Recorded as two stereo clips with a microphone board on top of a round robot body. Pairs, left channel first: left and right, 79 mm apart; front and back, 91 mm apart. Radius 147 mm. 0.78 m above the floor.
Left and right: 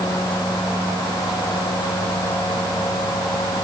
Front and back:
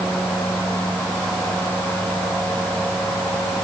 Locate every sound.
Only background noise.